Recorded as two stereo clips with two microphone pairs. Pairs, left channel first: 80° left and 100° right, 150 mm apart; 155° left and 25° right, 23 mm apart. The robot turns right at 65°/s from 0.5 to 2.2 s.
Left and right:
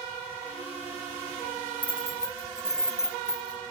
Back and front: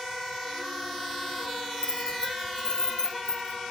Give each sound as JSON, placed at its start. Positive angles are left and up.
{"t": 1.8, "sound": "keys jangling", "azimuth_deg": 150, "distance_m": 0.9}